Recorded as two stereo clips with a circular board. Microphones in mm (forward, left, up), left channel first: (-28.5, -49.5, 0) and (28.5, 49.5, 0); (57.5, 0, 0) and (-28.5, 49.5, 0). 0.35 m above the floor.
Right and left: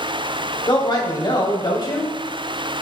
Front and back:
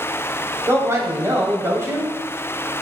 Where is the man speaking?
155° right, 2.5 m.